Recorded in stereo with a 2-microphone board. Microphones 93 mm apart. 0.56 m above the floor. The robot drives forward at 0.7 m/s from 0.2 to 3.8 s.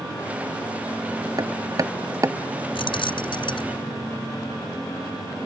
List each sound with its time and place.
1.4 s hammering: 45° right (ahead or behind); by 2.6 s 35° right (ahead or behind)
2.8 s keys jangling: 70° left (ahead or behind); by 3.8 s 60° left (ahead or behind)